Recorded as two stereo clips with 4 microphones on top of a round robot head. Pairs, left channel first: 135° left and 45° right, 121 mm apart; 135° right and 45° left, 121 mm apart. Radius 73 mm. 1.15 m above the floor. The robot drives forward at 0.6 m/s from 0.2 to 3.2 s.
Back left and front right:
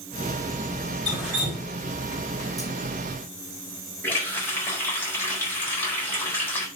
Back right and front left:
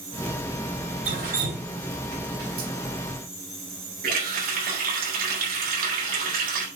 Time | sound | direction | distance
1.1 | dripping | 40° left | 6 m
4.0 | a running tap | 60° left | 4 m